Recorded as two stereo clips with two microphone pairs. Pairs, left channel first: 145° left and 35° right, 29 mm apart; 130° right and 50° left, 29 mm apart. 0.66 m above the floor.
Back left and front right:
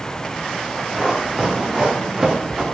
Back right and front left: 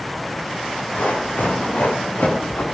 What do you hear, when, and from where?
0.9 s running footsteps: 115° right, 8 m; by 2.6 s 105° right, 6 m